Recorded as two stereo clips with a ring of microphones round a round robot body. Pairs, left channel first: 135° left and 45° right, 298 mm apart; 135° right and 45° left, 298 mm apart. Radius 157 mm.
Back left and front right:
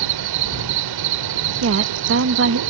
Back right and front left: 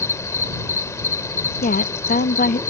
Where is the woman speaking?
80° right.